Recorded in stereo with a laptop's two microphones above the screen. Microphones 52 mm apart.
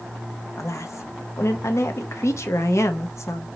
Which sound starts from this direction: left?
A woman speaking, at 0.6 s.